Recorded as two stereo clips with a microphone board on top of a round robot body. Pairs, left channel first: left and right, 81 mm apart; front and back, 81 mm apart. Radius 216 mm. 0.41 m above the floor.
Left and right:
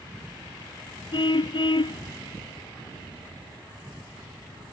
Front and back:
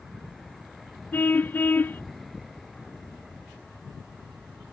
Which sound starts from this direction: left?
A car horn, at 1.1 s.